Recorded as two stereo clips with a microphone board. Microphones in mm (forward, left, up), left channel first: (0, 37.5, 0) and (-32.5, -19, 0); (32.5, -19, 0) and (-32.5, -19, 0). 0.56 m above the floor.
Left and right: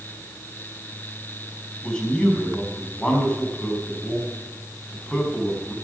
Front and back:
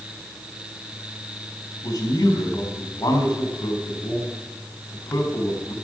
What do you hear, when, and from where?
1.8 s a man speaking: 15° right, 4.5 m